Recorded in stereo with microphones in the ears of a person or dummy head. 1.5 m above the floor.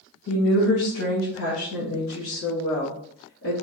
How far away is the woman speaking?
About 1.1 m.